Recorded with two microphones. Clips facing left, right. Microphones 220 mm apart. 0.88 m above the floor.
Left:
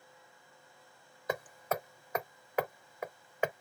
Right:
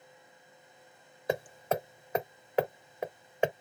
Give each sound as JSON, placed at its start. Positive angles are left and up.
{"t": 1.3, "sound": "hammering", "side_deg": -30}